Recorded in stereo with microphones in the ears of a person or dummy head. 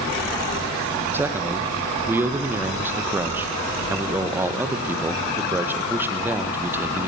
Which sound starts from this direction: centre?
A man speaking, at 1.1 s.